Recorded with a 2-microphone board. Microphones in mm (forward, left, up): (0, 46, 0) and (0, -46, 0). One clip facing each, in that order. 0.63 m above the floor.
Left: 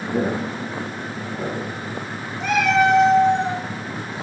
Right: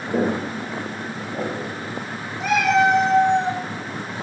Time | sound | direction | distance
0.1 | footsteps | 65° right (ahead or behind) | 2 m
2.4 | a cat meowing | centre (ahead or behind) | 1.3 m